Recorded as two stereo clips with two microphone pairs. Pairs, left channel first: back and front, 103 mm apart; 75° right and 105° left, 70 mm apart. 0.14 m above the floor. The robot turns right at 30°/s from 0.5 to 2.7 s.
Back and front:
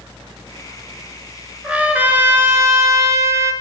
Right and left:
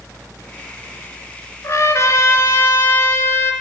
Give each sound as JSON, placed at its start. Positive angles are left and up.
{"t": 1.6, "sound": "a trumpet", "azimuth_deg": -75, "distance_m": 1.0}